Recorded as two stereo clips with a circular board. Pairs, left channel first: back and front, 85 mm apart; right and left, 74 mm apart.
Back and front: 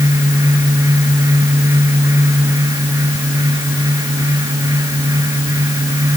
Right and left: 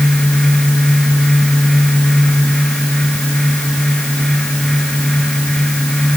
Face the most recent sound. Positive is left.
No sound to turn to.